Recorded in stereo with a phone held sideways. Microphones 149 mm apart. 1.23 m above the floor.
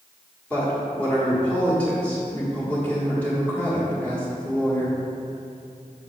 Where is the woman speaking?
10° left (ahead or behind), 1.3 m.